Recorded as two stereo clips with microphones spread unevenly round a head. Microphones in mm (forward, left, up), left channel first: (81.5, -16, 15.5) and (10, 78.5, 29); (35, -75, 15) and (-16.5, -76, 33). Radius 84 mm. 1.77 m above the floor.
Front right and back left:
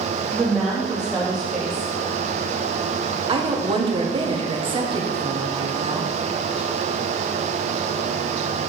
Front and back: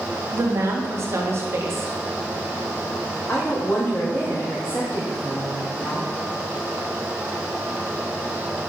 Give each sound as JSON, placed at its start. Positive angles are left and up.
{"t": 0.3, "sound": "a woman speaking", "azimuth_deg": -145, "distance_m": 1.9}
{"t": 3.3, "sound": "a woman speaking", "azimuth_deg": 80, "distance_m": 1.5}